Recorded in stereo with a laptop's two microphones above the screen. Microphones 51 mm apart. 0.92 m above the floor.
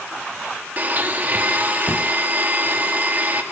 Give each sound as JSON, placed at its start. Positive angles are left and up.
{"t": 0.8, "sound": "a blender", "side_deg": -35, "distance_m": 0.8}